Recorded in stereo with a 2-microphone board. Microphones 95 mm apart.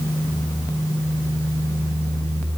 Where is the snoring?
No snoring in this recording.